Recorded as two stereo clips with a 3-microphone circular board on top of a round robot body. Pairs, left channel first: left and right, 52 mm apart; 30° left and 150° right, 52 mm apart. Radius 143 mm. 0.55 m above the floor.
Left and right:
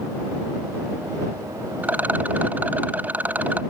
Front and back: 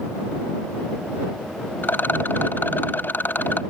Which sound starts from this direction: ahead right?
A rattle, at 1.8 s.